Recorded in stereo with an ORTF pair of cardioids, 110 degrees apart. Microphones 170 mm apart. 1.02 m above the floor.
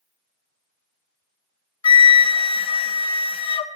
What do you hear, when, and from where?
1.8 s a flute: 30° left, 0.7 m